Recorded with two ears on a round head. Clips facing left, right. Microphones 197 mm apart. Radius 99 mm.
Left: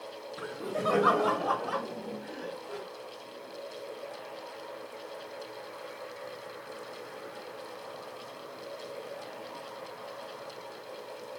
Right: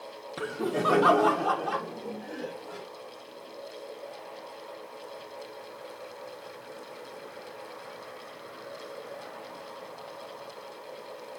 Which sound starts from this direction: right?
Laughter, at 0.4 s.